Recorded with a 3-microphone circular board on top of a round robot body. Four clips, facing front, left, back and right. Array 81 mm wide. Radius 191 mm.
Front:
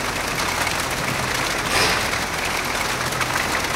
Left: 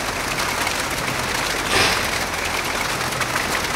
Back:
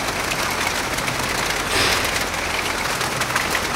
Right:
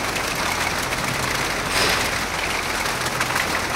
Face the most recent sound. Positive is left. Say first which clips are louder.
# left 3 dB, front 1 dB
turn(degrees=100)